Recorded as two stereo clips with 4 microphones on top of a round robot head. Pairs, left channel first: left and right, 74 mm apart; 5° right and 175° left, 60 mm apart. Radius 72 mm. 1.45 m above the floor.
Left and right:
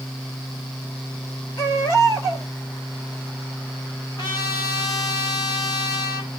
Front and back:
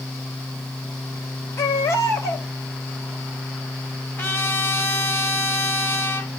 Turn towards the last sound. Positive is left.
turn(degrees=45)